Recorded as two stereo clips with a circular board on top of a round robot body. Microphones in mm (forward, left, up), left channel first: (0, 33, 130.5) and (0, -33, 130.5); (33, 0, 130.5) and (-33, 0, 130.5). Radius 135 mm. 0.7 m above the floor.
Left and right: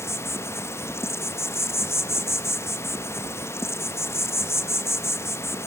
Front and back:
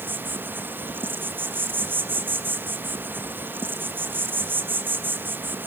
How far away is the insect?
About 0.9 m.